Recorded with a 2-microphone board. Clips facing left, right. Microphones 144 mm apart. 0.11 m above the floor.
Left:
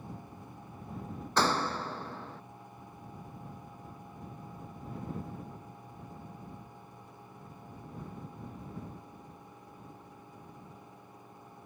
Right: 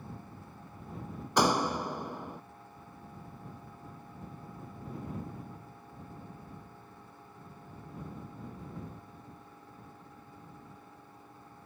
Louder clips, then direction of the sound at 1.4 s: Right 3 dB; 10° right (ahead or behind).